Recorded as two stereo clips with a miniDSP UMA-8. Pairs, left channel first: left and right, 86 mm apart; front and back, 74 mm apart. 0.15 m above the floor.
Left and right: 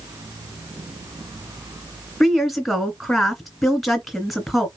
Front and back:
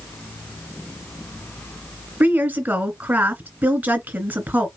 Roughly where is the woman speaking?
Behind.